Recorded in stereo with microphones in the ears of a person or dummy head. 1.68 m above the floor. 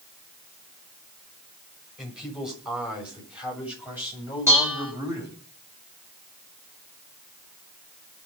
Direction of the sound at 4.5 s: 15° right (ahead or behind).